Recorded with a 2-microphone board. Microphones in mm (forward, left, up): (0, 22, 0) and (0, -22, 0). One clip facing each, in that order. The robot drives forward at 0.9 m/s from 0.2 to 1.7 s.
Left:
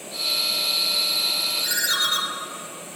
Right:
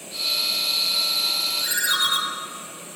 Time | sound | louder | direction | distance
1.6 | a ringtone | right 2 dB | 10° right (ahead or behind) | 1.4 m